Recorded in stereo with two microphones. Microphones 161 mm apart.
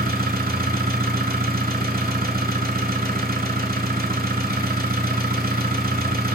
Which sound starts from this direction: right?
An engine running, at 0.0 s.